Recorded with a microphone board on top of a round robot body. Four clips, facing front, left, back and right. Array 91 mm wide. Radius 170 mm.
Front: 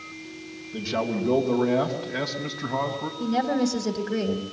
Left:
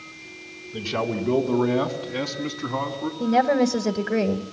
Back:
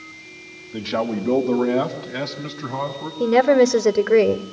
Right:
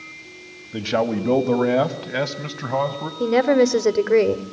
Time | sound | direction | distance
0.7 | a man speaking | 105° right | 3.5 m
3.2 | a woman speaking | 150° right | 1.7 m